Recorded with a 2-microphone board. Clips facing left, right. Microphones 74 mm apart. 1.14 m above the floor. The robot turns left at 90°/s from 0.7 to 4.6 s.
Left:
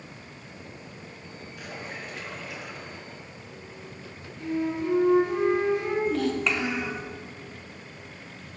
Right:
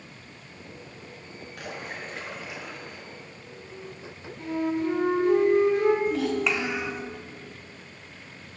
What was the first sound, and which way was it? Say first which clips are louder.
A splash: right 2 dB; 85° right.